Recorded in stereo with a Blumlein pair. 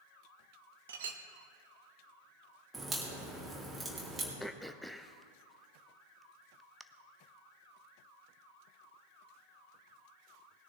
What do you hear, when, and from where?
0.9 s a clink: 60° right, 1.0 m
2.7 s a crack: 10° right, 3 m
4.4 s throat clearing: straight ahead, 0.6 m